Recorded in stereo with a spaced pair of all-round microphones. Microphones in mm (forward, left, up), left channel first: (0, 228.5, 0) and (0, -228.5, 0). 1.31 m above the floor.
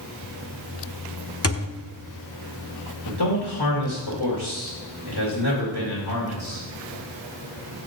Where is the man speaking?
55° left (ahead or behind), 2 m.